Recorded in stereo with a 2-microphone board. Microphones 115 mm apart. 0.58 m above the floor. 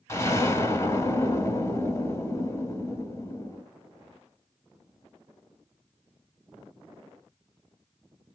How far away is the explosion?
About 0.9 m.